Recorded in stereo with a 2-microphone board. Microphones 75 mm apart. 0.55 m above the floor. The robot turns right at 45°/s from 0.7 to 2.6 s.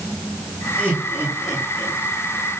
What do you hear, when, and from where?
0.8 s laughter: 15° left (ahead or behind), 7.5 m; by 2.0 s 65° left (ahead or behind), 7.5 m